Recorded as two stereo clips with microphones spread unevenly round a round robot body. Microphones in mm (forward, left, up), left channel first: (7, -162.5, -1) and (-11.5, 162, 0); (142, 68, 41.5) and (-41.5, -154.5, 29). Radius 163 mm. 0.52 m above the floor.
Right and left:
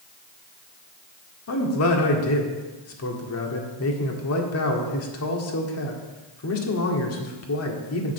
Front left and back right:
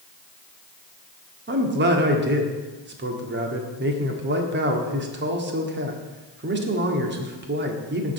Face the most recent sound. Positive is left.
turn(degrees=-105)